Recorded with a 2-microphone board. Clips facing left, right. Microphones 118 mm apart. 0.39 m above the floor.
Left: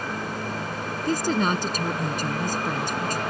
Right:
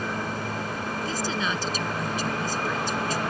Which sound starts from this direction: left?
A woman speaking, at 1.1 s.